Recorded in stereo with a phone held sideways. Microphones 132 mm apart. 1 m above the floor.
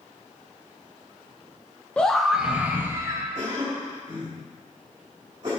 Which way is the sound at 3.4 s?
35° right (ahead or behind).